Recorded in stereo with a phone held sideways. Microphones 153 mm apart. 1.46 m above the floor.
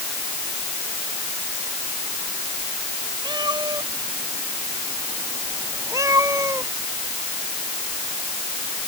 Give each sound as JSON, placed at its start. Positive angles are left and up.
{"t": 3.2, "sound": "a cat meowing", "side_deg": -30}